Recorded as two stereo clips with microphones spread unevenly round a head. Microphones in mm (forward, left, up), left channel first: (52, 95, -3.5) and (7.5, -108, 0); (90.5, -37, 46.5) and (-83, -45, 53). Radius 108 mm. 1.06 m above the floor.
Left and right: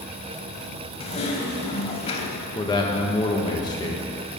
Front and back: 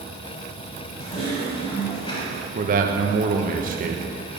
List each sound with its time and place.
1.0 s typing on a keyboard: 50° left, 0.9 m
2.5 s a man speaking: 145° left, 1.1 m